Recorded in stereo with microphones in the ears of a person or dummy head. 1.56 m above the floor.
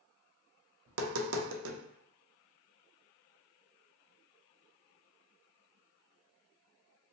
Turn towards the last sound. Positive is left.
turn(degrees=-65)  # may be behind; listen again after turning